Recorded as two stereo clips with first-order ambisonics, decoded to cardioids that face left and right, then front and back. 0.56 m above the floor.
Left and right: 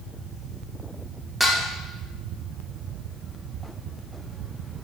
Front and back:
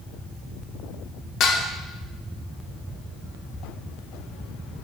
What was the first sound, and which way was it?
Dishes clattering, 5° left.